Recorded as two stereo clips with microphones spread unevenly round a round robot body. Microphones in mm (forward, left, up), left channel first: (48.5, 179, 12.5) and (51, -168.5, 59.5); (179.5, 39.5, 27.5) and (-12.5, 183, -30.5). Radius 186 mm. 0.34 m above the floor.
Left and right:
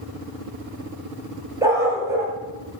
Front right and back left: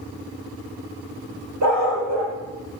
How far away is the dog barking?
About 2.5 m.